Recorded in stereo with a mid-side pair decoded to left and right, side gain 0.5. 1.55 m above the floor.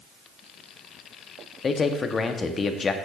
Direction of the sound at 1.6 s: 35° left.